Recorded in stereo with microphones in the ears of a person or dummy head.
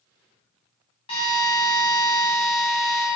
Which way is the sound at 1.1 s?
25° left (ahead or behind).